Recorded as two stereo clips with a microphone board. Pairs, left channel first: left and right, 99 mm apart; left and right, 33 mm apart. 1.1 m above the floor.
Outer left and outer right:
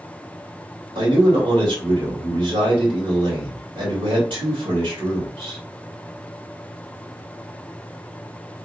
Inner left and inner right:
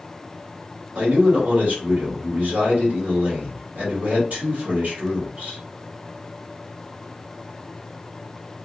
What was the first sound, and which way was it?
A man speaking, 55° right (ahead or behind).